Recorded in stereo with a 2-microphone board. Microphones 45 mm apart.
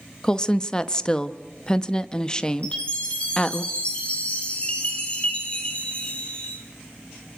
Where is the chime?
25° left (ahead or behind), 6 m.